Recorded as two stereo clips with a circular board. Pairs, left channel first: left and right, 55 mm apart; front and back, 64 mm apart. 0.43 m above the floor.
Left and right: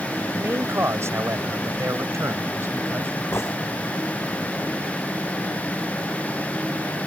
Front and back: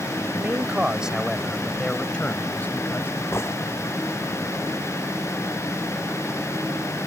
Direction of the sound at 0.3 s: 125° right.